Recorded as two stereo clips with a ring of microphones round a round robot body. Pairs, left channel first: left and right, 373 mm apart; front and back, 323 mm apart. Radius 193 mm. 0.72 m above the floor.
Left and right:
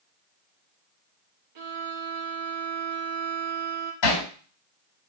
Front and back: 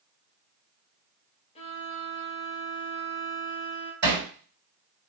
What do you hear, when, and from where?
1.6 s a violin: 65° right, 1.6 m
4.0 s hammering: 135° left, 3.5 m